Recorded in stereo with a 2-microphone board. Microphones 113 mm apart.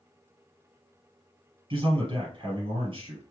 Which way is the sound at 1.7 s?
50° right (ahead or behind).